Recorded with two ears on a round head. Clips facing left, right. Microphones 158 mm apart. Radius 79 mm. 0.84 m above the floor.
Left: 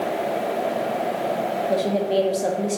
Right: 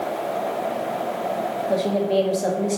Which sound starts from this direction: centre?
A woman speaking, at 1.7 s.